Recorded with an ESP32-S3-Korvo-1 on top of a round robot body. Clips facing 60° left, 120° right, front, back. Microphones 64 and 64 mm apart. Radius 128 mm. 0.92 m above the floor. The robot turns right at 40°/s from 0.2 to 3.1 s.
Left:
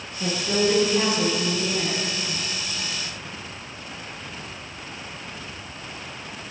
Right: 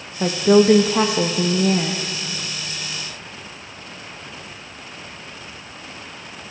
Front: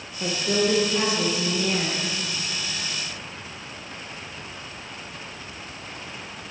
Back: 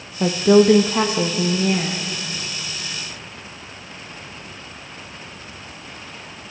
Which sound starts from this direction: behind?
A woman speaking, at 0.2 s.